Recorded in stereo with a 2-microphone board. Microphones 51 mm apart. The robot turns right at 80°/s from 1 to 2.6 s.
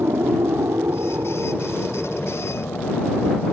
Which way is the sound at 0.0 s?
60° right (ahead or behind).